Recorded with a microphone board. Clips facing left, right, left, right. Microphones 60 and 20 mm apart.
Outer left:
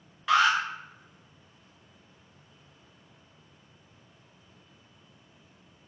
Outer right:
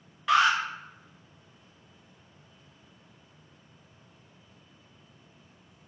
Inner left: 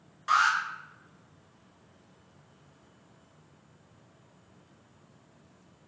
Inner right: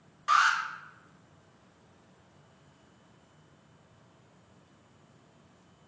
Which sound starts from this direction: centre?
An alarm, at 0.3 s.